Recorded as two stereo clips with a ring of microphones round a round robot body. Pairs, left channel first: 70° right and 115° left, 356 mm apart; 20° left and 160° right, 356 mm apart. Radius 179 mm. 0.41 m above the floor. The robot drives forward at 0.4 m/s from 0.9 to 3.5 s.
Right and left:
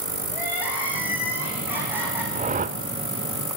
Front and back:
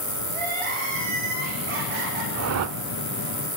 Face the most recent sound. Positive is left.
turn(degrees=175)